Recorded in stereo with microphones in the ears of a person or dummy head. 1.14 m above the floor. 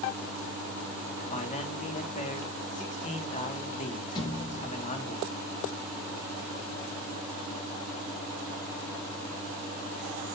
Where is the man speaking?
40° left (ahead or behind), 1.6 m.